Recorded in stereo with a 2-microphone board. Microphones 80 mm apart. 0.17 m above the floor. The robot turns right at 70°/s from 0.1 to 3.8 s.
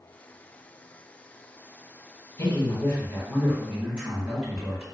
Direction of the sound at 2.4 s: 100° left.